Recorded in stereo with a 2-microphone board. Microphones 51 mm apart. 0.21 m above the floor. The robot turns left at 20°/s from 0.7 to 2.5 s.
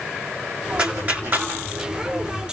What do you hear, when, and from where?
0.8 s a clap: 25° right (ahead or behind), 3.5 m; by 1.5 s 40° right (ahead or behind), 3.5 m